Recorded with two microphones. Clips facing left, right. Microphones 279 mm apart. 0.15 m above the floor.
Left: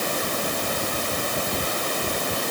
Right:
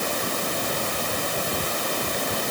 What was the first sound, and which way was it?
Only background noise.